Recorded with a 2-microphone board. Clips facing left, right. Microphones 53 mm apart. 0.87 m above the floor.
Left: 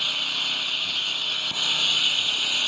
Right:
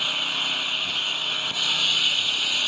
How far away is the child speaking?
I don't hear a child speaking.